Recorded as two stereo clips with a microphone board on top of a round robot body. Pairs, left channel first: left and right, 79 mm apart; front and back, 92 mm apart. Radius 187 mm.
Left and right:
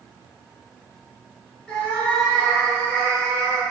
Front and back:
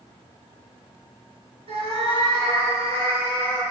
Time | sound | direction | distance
1.7 | a cat meowing | 170° left | 3.5 m